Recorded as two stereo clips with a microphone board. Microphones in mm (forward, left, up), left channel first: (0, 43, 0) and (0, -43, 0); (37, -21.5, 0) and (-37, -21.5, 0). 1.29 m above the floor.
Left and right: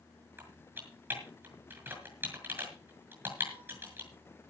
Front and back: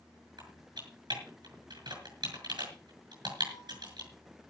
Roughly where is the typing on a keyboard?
Behind right.